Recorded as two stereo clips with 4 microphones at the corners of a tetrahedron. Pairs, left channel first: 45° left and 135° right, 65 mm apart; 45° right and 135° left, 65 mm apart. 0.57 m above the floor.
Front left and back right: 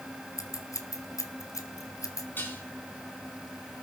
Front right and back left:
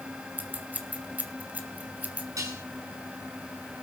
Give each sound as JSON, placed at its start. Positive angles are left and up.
{"t": 0.4, "sound": "scissors", "azimuth_deg": 70, "distance_m": 2.0}
{"t": 2.4, "sound": "dishes clattering", "azimuth_deg": 105, "distance_m": 4.5}